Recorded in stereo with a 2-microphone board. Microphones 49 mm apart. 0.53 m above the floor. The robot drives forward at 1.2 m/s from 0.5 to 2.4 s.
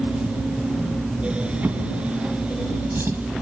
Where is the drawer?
35° right (ahead or behind), 2.5 m; by 3.2 s 50° right (ahead or behind), 2 m.